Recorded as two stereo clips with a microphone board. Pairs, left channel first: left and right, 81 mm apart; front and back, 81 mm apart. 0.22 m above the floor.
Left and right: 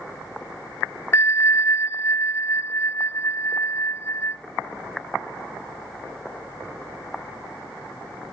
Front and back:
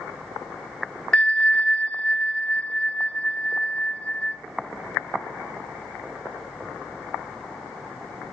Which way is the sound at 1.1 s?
70° left.